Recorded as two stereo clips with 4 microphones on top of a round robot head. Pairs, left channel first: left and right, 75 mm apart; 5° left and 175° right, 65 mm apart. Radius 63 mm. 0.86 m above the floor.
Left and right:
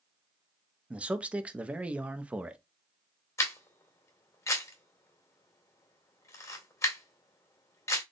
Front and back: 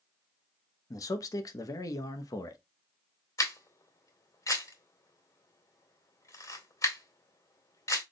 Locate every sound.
0.9 s a man speaking: 20° right, 0.9 m
3.4 s a camera shutter: 40° left, 2.5 m